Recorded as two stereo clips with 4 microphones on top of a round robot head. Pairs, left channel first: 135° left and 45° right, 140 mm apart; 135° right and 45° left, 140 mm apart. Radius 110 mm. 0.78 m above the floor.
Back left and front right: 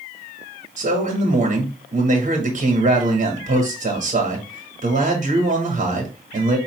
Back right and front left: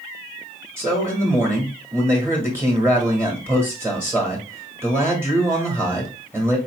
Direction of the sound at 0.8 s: 30° right.